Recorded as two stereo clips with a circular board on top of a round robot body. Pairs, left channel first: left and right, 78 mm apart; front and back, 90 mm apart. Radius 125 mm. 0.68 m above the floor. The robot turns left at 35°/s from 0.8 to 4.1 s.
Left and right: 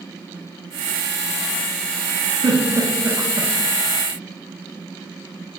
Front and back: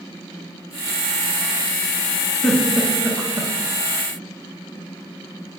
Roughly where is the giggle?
Right.